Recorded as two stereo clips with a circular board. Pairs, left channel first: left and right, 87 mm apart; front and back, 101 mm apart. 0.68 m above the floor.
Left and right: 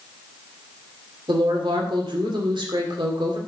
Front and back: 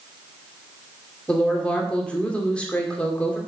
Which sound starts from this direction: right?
A woman speaking, at 1.3 s.